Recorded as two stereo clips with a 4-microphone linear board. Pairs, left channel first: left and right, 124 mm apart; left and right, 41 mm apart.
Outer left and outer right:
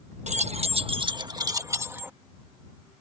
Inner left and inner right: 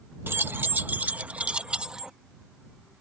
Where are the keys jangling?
70° right (ahead or behind); by 2.1 s 15° right (ahead or behind).